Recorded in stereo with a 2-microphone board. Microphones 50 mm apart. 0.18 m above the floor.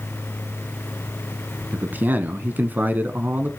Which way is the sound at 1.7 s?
40° right (ahead or behind).